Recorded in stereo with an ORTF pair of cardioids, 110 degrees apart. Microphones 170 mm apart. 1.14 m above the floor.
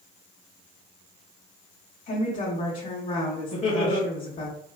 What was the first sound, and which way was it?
A woman speaking, 50° left.